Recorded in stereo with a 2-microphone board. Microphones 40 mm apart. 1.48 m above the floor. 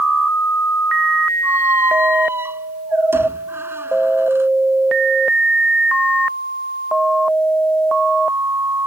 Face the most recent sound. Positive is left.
turn(degrees=-70)  # may be behind; listen again after turning